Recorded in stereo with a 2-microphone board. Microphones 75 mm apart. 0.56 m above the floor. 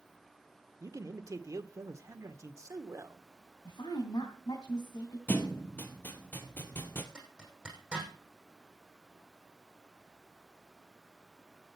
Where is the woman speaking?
70° left (ahead or behind), 4 m.